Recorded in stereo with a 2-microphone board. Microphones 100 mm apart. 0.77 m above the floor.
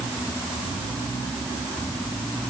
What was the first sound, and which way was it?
Only background noise.